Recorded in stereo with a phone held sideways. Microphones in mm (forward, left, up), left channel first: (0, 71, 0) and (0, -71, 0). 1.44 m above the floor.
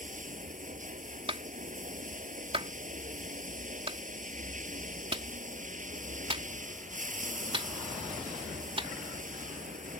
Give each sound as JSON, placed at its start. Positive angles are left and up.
{"t": 0.0, "sound": "running water", "side_deg": -65}
{"t": 1.3, "sound": "a clap", "side_deg": -40}